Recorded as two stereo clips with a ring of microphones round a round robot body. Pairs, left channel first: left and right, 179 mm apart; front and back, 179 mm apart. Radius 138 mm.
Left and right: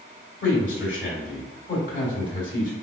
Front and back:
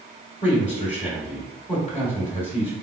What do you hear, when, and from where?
0.4 s a man speaking: 60° left, 1.9 m